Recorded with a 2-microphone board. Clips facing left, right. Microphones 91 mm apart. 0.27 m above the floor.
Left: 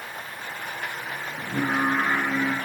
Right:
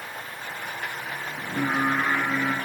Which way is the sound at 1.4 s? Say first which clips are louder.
Left 1 dB; 50° left (ahead or behind).